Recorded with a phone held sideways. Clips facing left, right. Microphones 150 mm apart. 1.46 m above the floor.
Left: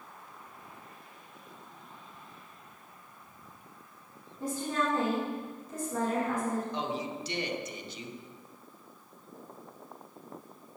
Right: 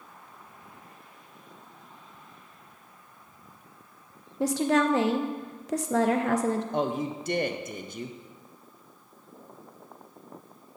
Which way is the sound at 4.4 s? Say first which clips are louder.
Right 8 dB; 80° right.